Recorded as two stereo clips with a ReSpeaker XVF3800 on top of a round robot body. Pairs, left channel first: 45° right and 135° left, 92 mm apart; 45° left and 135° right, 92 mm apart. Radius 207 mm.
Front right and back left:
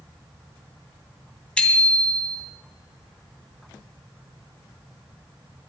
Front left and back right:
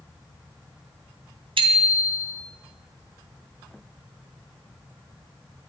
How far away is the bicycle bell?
About 2.5 m.